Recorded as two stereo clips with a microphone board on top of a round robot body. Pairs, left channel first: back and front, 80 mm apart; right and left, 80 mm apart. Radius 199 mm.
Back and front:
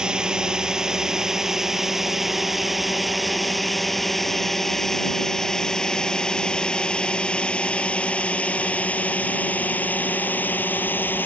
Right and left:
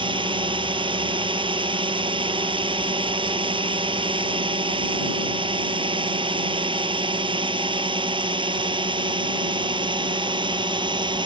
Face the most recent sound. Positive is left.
turn(degrees=110)